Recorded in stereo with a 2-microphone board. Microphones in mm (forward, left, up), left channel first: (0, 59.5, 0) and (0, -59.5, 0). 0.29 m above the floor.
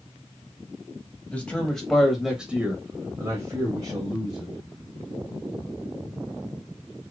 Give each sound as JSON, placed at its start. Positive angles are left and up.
{"t": 1.3, "sound": "a man speaking", "side_deg": 10, "distance_m": 1.2}